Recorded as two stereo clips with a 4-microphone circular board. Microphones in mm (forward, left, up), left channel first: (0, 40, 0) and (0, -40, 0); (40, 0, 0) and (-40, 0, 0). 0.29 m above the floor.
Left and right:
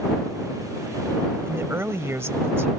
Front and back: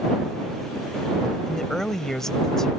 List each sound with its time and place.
1.5 s a woman speaking: 80° right